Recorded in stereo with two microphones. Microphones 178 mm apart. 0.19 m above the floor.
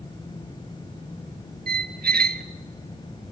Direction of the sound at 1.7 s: 55° right (ahead or behind).